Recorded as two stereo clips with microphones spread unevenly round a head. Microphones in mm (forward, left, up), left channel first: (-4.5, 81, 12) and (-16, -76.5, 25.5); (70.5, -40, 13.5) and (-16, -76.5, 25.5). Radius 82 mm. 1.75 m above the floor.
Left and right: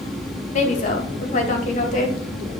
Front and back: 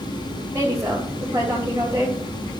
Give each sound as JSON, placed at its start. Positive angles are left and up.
{"t": 0.5, "sound": "a woman speaking", "azimuth_deg": 130, "distance_m": 2.0}